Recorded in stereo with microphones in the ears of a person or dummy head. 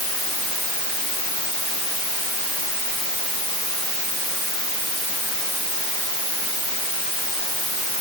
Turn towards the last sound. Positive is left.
No sound to turn to.